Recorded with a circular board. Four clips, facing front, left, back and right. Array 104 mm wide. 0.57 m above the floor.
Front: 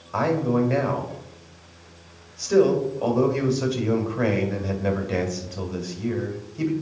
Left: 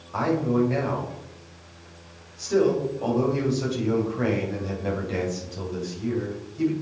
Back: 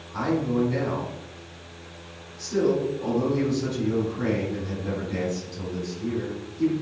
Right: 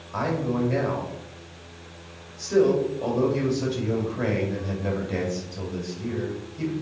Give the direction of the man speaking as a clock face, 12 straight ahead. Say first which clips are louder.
Left 3 dB, front 3 dB; 12 o'clock.